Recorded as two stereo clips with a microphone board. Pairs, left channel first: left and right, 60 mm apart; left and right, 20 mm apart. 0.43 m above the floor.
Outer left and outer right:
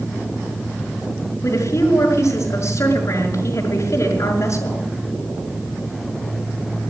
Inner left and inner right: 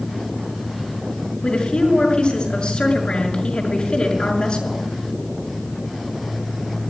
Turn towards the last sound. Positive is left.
turn(degrees=55)  # may be behind; listen again after turning